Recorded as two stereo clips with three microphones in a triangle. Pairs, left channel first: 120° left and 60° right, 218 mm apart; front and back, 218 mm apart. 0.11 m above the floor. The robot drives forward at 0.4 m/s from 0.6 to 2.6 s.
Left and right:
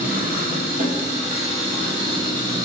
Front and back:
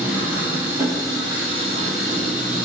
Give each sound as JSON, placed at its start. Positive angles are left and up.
{"t": 0.0, "sound": "an engine running", "azimuth_deg": -100, "distance_m": 1.4}